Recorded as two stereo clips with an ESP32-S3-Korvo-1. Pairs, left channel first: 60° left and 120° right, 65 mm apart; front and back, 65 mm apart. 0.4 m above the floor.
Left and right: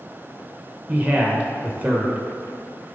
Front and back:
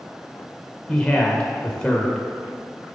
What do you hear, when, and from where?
0.9 s a man speaking: 70° right, 1.0 m